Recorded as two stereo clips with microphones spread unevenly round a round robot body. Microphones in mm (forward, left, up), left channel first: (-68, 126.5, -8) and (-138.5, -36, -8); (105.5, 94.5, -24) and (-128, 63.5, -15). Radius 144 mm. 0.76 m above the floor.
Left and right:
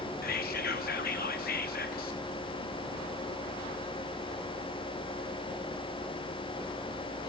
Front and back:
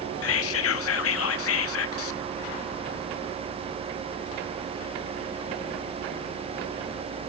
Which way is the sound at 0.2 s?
20° left.